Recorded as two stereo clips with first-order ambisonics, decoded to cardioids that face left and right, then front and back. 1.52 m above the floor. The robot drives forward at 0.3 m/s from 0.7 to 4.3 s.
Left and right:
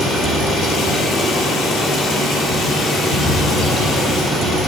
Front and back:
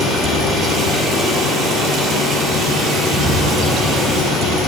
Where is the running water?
115° left, 2.5 m; by 4.7 s 135° left, 3 m.